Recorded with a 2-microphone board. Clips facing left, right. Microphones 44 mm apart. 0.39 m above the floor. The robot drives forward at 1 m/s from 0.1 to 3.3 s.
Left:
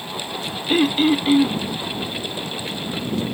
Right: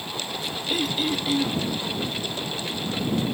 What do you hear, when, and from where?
0.7 s throat clearing: 40° left (ahead or behind); by 1.6 s 30° left (ahead or behind)